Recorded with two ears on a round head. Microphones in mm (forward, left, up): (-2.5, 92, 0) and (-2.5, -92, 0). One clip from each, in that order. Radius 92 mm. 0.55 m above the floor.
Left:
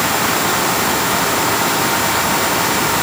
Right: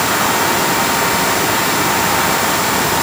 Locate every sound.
Only background noise.